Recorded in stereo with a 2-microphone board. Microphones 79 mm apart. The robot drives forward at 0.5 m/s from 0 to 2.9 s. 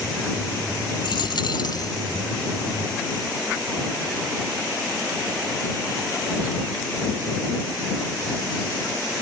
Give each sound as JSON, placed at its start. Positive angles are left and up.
{"t": 1.0, "sound": "a dropped coin", "side_deg": 85, "distance_m": 0.6}